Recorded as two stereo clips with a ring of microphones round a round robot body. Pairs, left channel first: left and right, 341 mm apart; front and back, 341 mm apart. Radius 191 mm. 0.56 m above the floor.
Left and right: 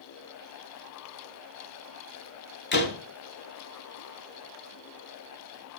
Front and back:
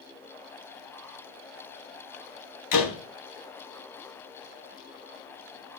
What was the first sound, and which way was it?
A door slam, 30° left.